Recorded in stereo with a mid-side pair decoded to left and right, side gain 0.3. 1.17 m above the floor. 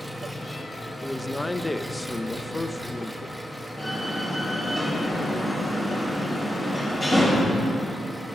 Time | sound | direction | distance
0.0 | an engine running | 5° left | 1.1 m
1.0 | a man speaking | 20° left | 0.5 m
3.8 | a door slam | 30° left | 3.5 m